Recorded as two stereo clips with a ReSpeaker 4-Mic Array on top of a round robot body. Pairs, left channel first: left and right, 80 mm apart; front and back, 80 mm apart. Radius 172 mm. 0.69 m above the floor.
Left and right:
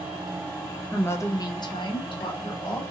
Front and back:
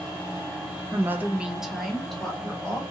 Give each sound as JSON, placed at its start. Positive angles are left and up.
{"t": 0.9, "sound": "a woman speaking", "azimuth_deg": 155, "distance_m": 0.6}